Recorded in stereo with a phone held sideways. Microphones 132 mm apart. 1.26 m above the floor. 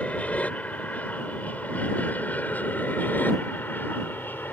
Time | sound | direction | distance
0.0 | an aircraft | 10° left (ahead or behind) | ?